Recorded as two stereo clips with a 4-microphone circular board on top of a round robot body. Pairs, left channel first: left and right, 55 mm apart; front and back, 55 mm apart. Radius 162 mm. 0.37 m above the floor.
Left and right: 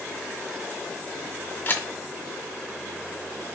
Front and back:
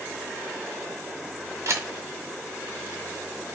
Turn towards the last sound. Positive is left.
turn(degrees=140)